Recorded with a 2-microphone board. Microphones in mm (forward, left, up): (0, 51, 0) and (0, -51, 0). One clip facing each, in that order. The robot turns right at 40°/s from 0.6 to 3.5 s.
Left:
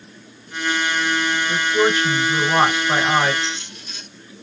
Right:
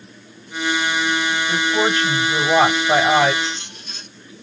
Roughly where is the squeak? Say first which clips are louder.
Right 1 dB; right.